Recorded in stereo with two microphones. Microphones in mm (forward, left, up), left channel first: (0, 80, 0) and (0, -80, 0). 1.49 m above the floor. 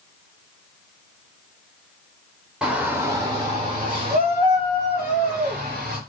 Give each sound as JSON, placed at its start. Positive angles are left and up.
{"t": 2.6, "sound": "a shout", "side_deg": -5, "distance_m": 0.7}